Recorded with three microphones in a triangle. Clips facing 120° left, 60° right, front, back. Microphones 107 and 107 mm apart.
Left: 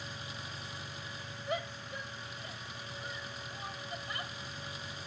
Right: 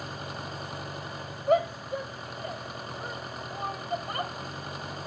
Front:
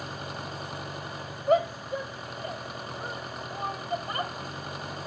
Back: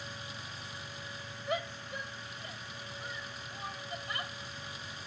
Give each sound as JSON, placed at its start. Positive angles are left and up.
{"t": 0.0, "sound": "an engine running", "azimuth_deg": -30}
{"t": 1.5, "sound": "a shout", "azimuth_deg": -35}